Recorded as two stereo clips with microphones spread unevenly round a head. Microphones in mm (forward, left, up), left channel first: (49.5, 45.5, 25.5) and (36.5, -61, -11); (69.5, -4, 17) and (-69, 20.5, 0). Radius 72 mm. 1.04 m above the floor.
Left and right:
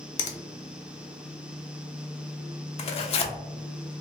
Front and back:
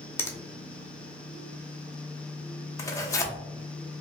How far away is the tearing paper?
About 0.6 m.